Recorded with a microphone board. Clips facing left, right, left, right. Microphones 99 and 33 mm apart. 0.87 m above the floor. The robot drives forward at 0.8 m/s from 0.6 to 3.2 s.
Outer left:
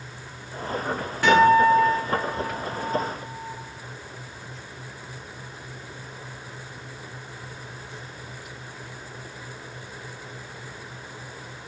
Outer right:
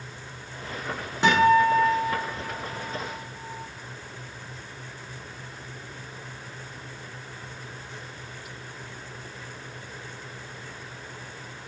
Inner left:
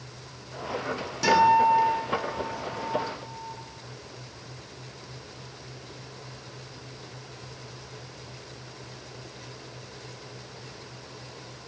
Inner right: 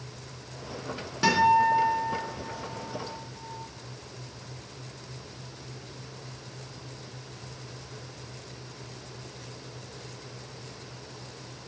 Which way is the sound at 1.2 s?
25° right (ahead or behind).